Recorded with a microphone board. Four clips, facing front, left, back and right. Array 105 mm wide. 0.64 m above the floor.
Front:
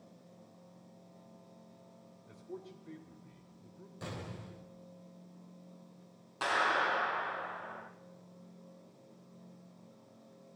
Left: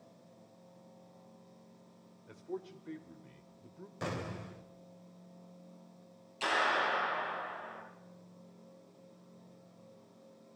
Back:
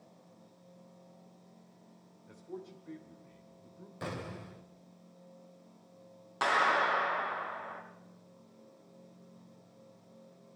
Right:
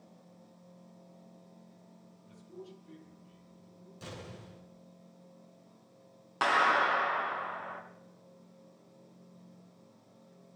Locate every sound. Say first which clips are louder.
2.3 s a man speaking: left 7 dB, back 2 dB; 100° left, 2.5 m
4.0 s an explosion: left 7 dB, back 4 dB; 120° left, 1.9 m
6.4 s a clap: right 5 dB, back 3 dB; 105° right, 6 m